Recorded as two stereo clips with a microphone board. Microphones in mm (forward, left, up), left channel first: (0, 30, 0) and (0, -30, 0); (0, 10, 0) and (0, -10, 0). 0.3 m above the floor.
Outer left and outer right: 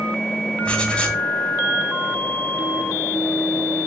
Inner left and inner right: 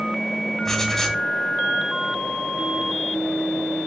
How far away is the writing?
About 1.3 m.